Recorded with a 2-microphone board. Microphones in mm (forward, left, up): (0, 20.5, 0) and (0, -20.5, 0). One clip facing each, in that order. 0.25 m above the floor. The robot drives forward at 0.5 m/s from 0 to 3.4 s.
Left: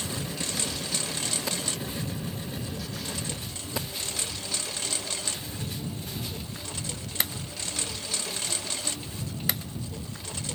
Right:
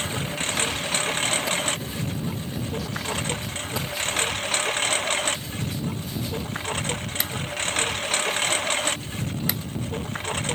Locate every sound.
0.0 s a lawn mower: 50° right (ahead or behind)